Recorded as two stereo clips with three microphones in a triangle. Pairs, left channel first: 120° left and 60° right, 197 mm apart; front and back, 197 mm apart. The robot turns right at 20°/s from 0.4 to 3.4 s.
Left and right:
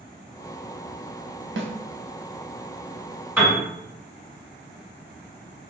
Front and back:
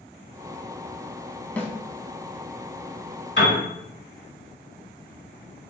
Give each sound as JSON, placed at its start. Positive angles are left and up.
{"t": 1.6, "sound": "a snare drum", "azimuth_deg": -80, "distance_m": 0.5}
{"t": 3.4, "sound": "a piano", "azimuth_deg": 20, "distance_m": 1.7}